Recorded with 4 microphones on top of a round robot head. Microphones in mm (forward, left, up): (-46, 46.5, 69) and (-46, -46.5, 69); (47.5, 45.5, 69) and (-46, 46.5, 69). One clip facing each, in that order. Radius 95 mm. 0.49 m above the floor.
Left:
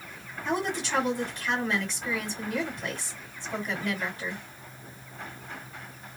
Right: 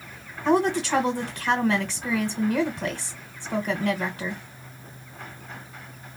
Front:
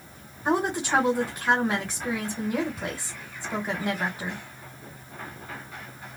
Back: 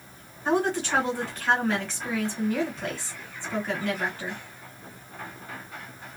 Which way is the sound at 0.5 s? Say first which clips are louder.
Right 8 dB, even; 70° right.